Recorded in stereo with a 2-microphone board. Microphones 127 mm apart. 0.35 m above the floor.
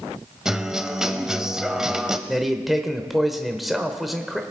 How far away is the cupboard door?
I don't hear a cupboard door.